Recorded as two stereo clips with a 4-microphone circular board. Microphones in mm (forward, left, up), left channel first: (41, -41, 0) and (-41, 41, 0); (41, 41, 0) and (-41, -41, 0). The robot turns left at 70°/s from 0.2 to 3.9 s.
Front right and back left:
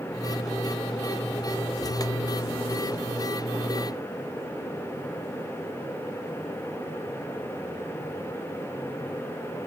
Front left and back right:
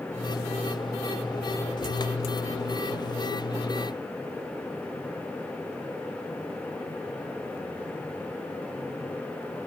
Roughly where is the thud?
No thud in this recording.